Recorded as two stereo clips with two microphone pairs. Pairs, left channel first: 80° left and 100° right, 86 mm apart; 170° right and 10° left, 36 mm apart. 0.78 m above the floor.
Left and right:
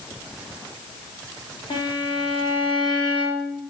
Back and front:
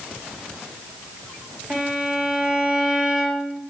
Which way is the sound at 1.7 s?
80° left.